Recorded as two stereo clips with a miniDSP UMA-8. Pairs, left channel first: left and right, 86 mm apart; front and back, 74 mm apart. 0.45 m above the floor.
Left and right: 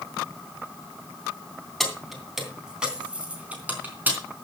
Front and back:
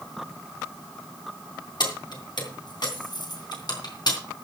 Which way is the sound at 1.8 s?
5° left.